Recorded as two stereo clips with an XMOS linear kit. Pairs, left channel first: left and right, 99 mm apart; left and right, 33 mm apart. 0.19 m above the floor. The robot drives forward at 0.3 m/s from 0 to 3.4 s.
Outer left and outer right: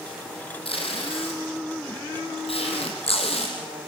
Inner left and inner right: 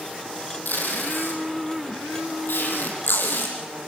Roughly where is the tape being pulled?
Left.